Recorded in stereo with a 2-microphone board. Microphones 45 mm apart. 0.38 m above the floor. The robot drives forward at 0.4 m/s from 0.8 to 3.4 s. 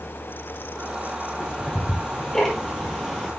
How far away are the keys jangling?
I don't hear keys jangling.